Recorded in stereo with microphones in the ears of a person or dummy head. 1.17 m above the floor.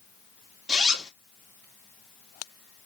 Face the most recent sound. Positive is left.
turn(degrees=0)  # may be behind; listen again after turning